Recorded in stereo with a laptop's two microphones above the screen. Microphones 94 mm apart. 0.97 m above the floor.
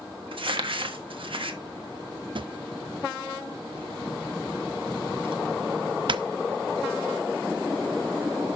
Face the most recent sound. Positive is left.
turn(degrees=-60)  # may be behind; listen again after turning